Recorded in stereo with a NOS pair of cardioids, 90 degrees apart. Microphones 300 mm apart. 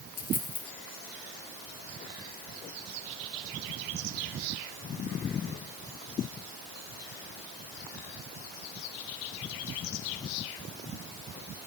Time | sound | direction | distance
0.2 | a dropped coin | 35° left | 4 m